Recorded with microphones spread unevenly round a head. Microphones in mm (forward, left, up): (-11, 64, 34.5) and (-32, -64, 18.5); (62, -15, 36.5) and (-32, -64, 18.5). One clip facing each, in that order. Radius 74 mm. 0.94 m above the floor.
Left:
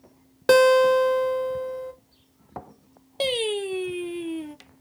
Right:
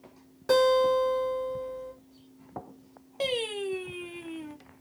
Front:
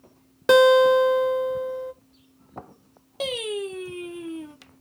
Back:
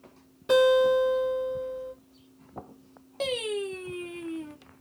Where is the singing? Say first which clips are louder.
Left 5 dB, front 1 dB; 115° left, 0.5 m.